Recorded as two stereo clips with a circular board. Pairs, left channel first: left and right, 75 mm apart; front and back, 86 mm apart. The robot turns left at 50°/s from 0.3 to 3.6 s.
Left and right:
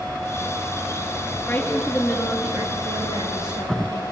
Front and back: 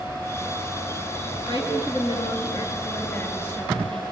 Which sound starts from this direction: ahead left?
A woman speaking, at 1.5 s.